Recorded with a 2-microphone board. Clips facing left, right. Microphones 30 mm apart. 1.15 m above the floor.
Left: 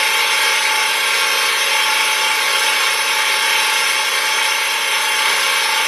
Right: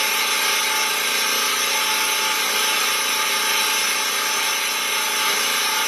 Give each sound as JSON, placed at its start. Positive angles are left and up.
{"t": 0.0, "sound": "an engine running", "side_deg": 60, "distance_m": 1.3}